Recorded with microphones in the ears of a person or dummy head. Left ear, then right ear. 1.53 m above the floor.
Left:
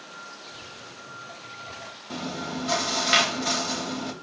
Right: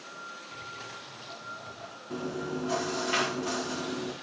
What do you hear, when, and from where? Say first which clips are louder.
0.5 s footsteps: right 1 dB; 15° right (ahead or behind), 6 m
2.1 s chewing: left 2 dB; 50° left (ahead or behind), 2.5 m